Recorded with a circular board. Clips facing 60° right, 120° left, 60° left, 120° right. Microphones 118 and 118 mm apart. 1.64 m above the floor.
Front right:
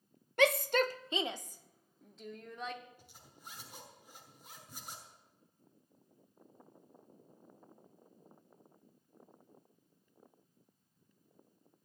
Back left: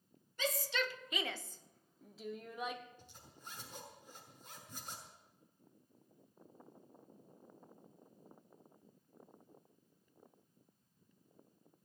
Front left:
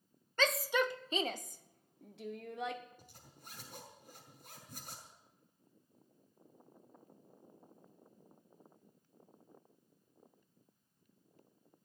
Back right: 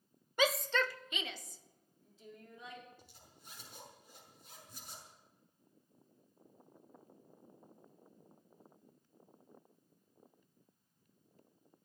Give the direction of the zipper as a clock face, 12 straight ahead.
11 o'clock.